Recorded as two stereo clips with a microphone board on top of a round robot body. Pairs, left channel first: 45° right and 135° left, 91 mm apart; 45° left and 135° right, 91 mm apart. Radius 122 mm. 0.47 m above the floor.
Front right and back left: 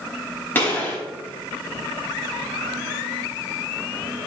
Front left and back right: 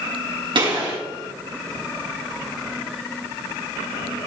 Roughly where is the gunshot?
Behind right.